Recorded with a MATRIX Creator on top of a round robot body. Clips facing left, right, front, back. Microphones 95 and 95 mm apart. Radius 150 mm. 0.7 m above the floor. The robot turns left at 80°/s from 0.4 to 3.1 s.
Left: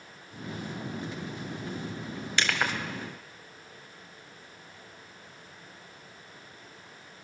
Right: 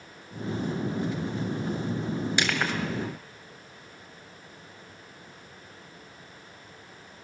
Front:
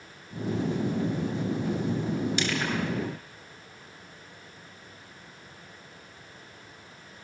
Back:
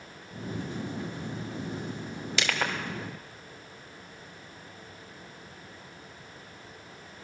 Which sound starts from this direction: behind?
Crushing, at 2.4 s.